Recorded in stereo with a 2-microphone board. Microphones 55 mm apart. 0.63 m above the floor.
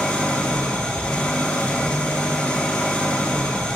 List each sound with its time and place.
0.0 s an engine running: 30° left (ahead or behind), 3 m